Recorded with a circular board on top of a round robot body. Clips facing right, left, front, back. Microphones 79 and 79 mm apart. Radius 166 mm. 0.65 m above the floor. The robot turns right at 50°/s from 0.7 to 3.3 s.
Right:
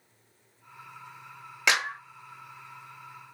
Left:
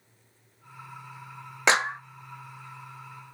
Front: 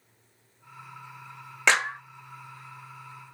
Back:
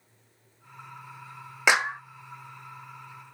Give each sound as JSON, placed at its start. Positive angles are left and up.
{"t": 1.7, "sound": "a clap", "azimuth_deg": 110, "distance_m": 1.0}